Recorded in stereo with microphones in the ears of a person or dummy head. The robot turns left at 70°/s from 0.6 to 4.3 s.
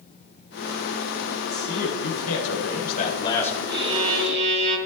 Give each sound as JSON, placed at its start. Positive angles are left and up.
{"t": 1.5, "sound": "a man speaking", "azimuth_deg": 150, "distance_m": 4.0}
{"t": 3.7, "sound": "a violin", "azimuth_deg": -20, "distance_m": 7.0}